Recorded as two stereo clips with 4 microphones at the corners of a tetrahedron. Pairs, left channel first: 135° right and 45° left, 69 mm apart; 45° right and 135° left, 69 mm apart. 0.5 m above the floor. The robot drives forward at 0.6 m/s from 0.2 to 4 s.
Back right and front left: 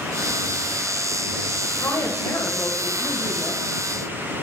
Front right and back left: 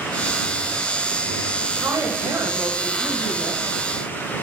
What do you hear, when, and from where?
1.7 s a woman speaking: straight behind, 2.5 m